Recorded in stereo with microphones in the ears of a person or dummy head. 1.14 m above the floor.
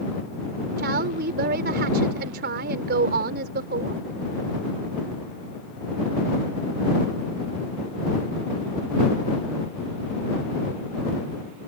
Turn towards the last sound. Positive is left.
turn(degrees=-55)  # may be behind; listen again after turning